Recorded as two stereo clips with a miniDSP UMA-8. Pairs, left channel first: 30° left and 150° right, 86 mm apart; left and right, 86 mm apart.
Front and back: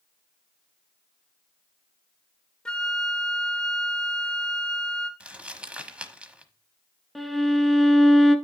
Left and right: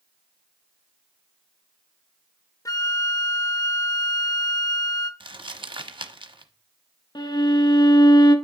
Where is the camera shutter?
No camera shutter in this recording.